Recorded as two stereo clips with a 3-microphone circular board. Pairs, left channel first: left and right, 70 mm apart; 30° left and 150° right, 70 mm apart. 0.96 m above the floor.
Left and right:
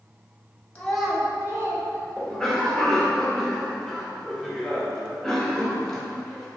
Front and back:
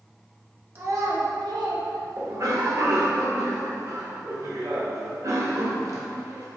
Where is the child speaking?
160° left, 0.6 m; by 2.7 s 120° right, 1.5 m.